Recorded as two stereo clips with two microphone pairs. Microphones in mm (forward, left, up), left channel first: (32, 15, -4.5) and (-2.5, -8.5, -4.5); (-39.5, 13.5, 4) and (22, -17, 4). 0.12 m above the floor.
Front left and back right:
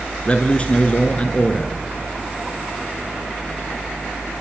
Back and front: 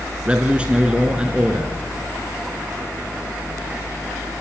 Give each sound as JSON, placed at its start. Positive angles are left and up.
{"t": 0.2, "sound": "a man speaking", "azimuth_deg": 30, "distance_m": 1.6}